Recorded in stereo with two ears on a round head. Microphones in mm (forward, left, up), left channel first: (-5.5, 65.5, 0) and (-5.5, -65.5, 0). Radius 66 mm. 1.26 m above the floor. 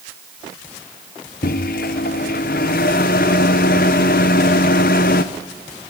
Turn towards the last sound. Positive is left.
turn(degrees=70)  # may be behind; listen again after turning